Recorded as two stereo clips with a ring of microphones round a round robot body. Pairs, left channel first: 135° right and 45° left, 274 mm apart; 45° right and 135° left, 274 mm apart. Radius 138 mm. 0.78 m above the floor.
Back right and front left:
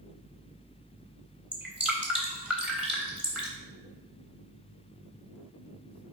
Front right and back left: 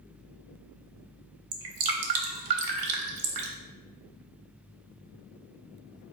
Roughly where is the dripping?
Behind left.